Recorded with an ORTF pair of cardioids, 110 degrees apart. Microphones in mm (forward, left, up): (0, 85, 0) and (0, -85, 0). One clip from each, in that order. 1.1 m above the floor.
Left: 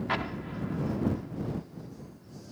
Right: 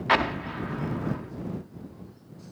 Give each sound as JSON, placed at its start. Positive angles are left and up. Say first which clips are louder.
{"t": 0.1, "sound": "an explosion", "louder": "right 11 dB", "azimuth_deg": -50}